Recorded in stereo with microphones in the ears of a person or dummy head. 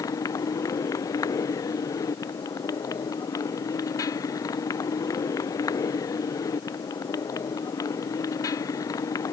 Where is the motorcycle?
15° left (ahead or behind).